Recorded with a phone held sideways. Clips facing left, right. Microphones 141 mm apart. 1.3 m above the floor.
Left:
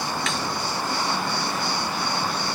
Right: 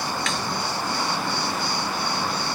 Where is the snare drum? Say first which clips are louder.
Even; centre (ahead or behind).